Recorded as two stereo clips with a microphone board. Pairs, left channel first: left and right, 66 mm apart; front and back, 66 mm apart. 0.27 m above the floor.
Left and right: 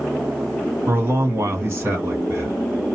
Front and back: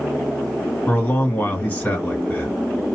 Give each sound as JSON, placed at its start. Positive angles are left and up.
{"t": 0.9, "sound": "a man speaking", "azimuth_deg": -55, "distance_m": 2.0}